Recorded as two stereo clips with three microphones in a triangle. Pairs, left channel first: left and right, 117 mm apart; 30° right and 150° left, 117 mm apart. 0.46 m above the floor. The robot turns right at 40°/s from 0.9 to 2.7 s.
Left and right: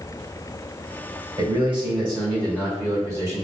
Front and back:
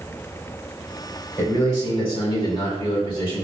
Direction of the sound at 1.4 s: 90° right.